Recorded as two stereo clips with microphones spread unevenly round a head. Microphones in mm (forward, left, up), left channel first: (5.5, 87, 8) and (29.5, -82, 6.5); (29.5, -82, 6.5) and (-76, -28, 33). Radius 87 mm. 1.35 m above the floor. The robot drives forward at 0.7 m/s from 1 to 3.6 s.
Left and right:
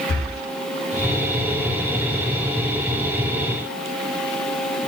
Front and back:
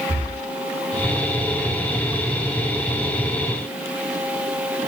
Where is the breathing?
105° left, 5.5 m.